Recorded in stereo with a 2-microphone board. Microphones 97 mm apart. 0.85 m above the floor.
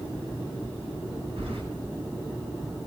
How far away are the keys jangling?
About 4.5 m.